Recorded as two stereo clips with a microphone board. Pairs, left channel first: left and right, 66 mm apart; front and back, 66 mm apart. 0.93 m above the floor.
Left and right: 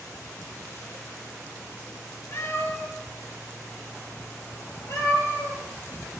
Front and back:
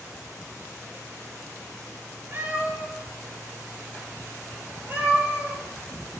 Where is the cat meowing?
125° left, 5.5 m; by 5.6 s 130° left, 11 m.